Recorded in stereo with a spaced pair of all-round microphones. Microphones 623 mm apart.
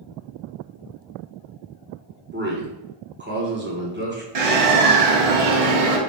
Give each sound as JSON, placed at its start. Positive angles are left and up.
{"t": 2.3, "sound": "a man speaking", "side_deg": -15, "distance_m": 1.2}
{"t": 4.3, "sound": "a bird", "side_deg": -60, "distance_m": 0.7}